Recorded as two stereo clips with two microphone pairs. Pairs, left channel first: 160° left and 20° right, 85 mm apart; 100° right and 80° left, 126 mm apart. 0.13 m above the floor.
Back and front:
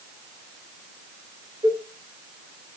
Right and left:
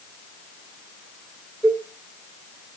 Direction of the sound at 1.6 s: 25° right.